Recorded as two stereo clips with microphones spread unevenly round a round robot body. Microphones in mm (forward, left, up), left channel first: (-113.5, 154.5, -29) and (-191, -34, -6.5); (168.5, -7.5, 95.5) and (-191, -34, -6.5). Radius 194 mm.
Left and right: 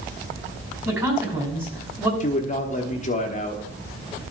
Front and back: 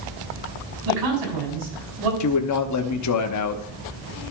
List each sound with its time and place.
0.8 s a man speaking: 170° left, 5 m
2.2 s a man speaking: 45° left, 0.9 m